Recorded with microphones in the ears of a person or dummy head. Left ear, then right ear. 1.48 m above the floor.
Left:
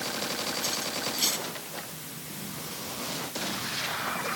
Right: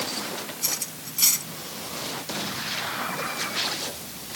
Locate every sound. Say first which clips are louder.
0.6 s cutlery clinking: left 1 dB; 20° right (ahead or behind)